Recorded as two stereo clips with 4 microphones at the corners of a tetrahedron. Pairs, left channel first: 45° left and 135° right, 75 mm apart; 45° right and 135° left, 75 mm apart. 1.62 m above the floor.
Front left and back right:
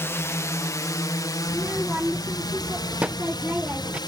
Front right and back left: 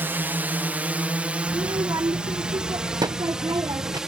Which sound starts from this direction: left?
A drone, at 0.0 s.